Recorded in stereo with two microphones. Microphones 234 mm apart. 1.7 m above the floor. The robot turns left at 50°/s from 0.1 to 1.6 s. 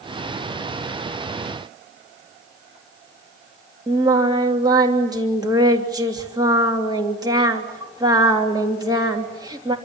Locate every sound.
3.9 s singing: 15° right (ahead or behind), 3 m